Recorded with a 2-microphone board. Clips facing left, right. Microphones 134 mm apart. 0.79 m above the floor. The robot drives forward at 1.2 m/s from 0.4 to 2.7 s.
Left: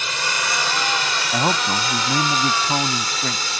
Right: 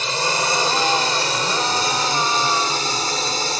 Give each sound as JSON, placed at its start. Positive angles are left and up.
{"t": 0.0, "sound": "a drone", "side_deg": -35}
{"t": 1.3, "sound": "a man speaking", "side_deg": 85}